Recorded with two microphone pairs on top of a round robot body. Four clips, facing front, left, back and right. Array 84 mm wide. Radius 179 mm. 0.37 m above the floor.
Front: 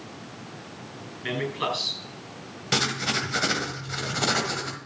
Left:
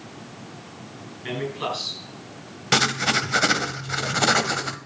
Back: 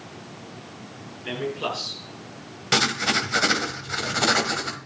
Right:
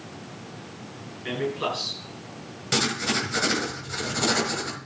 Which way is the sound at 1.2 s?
10° left.